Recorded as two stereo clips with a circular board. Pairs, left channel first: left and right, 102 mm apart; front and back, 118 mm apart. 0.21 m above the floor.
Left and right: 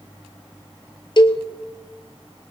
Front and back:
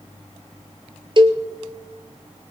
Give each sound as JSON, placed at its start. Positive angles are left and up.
{"t": 1.2, "sound": "a cowbell", "azimuth_deg": 130, "distance_m": 1.0}